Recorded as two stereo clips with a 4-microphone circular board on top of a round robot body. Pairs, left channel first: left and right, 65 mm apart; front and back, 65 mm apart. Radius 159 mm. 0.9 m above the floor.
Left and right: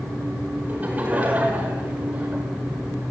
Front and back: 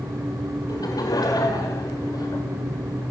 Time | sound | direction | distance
0.7 | laughter | 20° right | 5 m